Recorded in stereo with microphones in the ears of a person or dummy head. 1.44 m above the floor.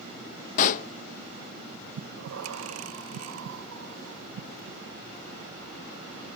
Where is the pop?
45° left (ahead or behind), 0.9 m.